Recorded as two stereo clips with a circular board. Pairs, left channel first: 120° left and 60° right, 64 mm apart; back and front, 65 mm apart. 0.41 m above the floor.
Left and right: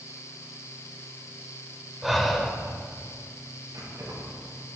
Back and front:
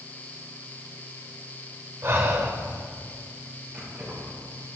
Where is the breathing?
30° left, 1.8 m.